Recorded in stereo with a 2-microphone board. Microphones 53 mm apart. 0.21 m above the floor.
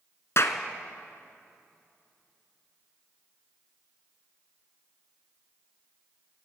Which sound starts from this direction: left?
A clap, at 0.4 s.